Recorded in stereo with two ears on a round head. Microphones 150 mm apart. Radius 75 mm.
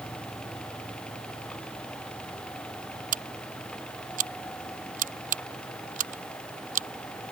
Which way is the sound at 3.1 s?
45° right (ahead or behind).